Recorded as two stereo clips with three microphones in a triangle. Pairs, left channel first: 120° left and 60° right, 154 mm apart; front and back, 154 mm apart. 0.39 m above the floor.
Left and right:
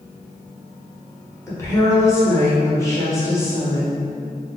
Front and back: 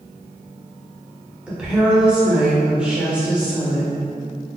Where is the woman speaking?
110° left, 0.8 m.